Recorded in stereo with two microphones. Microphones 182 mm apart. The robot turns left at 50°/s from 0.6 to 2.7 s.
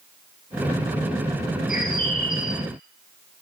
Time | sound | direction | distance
1.7 | a bird | 105° left | 1.5 m